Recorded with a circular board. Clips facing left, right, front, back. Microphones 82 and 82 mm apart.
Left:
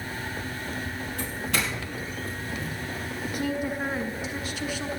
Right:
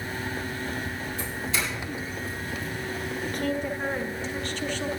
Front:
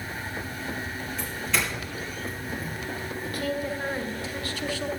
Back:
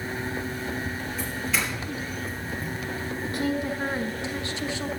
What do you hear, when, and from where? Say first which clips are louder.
1.2 s a doorbell: left 2 dB, even; 95° left, 5.5 m
3.2 s a woman speaking: left 1 dB, back 2 dB; 155° left, 1.1 m